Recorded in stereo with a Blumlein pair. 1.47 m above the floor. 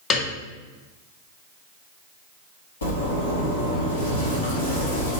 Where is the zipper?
70° left, 1.3 m.